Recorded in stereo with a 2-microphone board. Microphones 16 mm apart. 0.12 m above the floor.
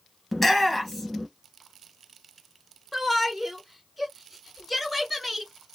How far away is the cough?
No cough in this recording.